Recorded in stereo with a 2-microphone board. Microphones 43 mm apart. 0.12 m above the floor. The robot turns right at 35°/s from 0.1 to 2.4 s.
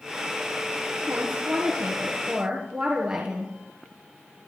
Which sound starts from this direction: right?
A woman speaking, at 1.1 s.